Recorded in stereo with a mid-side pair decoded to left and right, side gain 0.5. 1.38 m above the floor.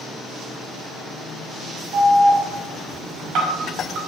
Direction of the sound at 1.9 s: 65° right.